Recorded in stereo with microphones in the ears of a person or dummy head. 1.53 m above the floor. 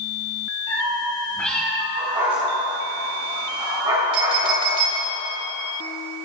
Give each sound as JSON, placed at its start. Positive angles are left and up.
{"t": 0.7, "sound": "a cat meowing", "side_deg": 15, "distance_m": 2.5}
{"t": 2.0, "sound": "a dog barking", "side_deg": -25, "distance_m": 4.0}
{"t": 4.1, "sound": "a clink", "side_deg": -25, "distance_m": 3.0}